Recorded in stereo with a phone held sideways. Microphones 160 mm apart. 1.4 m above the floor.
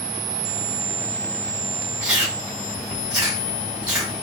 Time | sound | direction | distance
2.0 | chewing | 5° right (ahead or behind) | 1.8 m